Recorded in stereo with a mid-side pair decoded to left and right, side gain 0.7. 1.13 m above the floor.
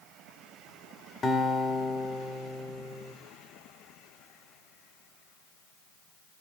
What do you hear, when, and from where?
1.2 s a guitar: 25° left, 1.9 m